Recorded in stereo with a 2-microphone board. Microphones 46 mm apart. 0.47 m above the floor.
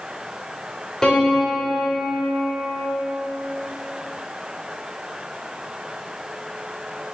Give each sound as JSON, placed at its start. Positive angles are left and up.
{"t": 1.0, "sound": "a piano", "side_deg": 15, "distance_m": 1.4}